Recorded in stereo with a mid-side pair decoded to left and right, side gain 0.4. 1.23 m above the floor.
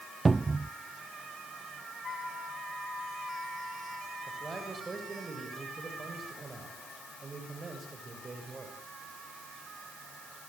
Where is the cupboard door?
25° right, 0.6 m.